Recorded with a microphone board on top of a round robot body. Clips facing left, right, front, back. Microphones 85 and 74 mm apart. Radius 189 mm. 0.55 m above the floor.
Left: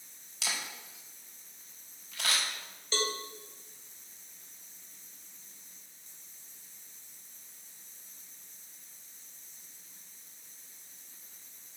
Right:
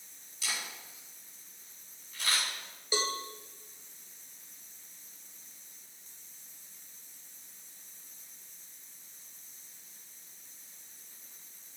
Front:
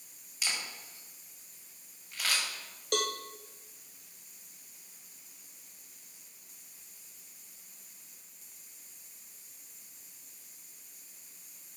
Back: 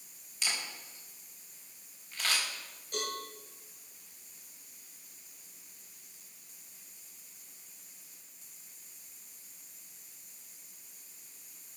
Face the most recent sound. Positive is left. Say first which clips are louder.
# right 1 dB, front 6 dB
turn(degrees=-10)